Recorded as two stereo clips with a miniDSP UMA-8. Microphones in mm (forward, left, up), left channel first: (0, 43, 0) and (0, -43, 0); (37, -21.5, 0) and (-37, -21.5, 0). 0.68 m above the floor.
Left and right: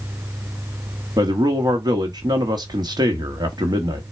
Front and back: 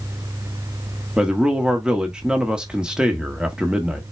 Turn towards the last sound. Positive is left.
turn(degrees=-100)